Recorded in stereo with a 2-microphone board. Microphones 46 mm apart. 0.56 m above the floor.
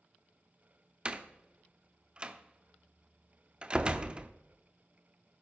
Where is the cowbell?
I don't hear a cowbell.